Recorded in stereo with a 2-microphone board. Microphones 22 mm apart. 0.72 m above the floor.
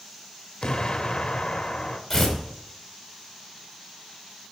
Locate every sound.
0.6 s an explosion: 45° left (ahead or behind), 0.7 m
2.1 s tearing paper: 10° left (ahead or behind), 2.5 m